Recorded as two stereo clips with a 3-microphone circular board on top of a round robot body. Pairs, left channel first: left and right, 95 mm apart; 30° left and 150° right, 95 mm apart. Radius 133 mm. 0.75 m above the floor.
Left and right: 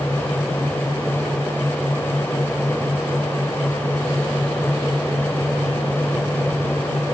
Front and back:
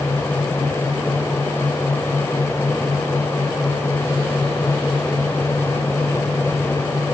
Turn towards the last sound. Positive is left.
No sound to turn to.